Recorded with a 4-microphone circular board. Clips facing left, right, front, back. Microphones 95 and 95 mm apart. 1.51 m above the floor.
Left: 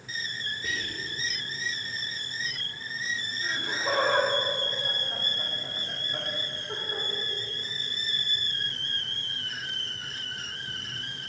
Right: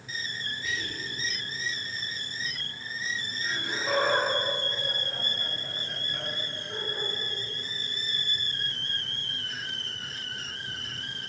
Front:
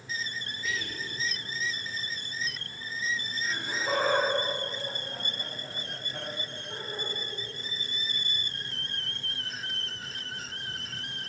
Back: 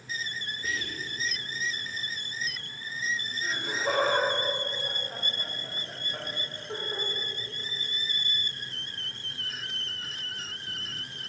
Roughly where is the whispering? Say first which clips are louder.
Even, even; behind left.